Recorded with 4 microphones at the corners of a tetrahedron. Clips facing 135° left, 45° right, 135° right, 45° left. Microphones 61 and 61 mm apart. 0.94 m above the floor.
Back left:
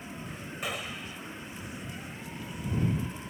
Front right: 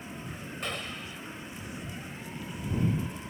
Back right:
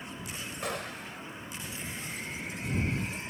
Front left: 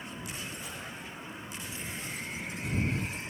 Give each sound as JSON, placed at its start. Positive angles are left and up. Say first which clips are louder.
{"t": 0.6, "sound": "a gunshot", "louder": "back left 1 dB, back right 5 dB", "azimuth_deg": -140}